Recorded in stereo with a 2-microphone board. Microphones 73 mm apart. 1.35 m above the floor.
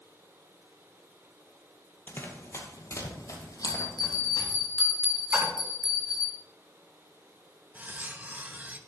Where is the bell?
10° right (ahead or behind), 6 m.